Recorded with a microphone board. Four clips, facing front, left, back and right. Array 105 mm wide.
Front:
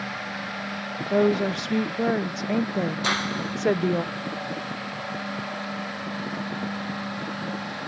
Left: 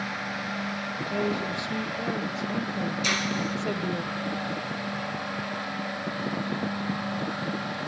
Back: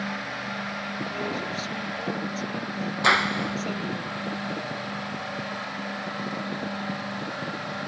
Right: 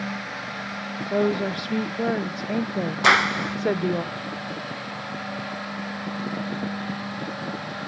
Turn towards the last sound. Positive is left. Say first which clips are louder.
# right 8 dB, back 4 dB
turn(degrees=-110)